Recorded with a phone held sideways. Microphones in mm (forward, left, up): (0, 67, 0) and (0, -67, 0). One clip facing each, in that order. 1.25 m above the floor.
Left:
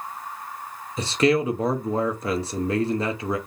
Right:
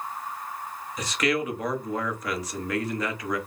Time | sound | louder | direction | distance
1.0 | a man speaking | left 6 dB | 30° left (ahead or behind) | 0.8 m